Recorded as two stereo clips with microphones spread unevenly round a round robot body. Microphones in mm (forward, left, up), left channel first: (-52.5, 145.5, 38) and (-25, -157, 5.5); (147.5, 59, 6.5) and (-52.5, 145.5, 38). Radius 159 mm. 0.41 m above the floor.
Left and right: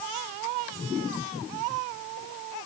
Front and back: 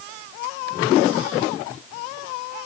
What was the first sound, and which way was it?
Only background noise.